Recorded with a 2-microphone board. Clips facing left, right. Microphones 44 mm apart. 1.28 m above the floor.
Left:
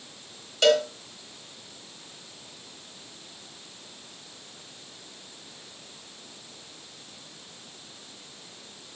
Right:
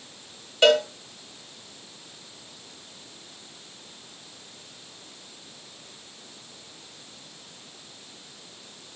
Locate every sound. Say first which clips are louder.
0.6 s a cowbell: right 2 dB; 15° right (ahead or behind), 1.2 m